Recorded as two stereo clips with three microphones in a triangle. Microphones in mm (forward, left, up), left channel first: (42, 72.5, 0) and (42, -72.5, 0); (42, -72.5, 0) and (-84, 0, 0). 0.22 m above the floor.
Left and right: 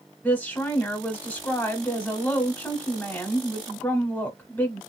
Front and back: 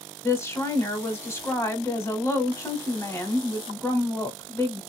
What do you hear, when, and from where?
0.2 s a woman speaking: 25° left, 1.0 m